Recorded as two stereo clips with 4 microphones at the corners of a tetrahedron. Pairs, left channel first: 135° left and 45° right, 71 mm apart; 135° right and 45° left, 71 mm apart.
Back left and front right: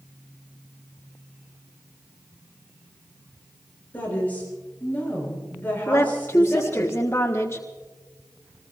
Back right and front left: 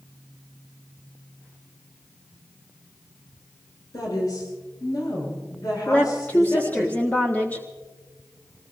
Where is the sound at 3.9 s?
160° right, 9 m.